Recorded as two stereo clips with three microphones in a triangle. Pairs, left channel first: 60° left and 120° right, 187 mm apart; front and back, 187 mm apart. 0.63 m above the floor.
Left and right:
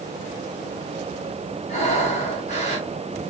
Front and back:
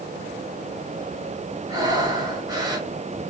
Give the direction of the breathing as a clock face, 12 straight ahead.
8 o'clock.